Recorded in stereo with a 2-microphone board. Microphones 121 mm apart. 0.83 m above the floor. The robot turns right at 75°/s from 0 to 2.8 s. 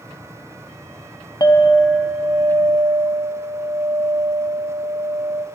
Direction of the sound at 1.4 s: 145° left.